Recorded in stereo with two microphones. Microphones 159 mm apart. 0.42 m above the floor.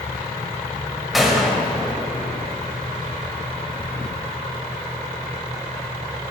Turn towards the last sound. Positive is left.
turn(degrees=0)  # may be behind; listen again after turning